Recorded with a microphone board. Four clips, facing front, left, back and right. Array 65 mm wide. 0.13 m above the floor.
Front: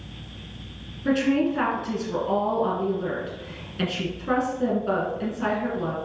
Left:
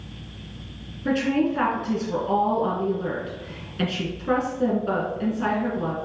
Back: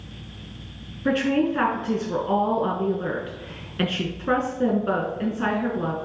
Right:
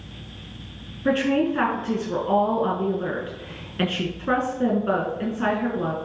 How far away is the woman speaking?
About 1.3 m.